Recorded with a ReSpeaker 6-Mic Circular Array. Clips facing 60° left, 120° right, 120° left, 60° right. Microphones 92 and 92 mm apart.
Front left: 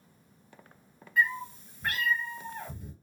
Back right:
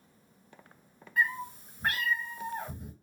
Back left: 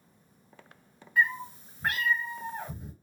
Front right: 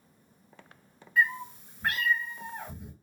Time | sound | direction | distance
1.2 | a cat meowing | 165° right | 1.4 m